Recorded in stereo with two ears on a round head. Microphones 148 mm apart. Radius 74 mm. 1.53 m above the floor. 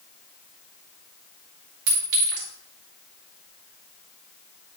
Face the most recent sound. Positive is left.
turn(degrees=-80)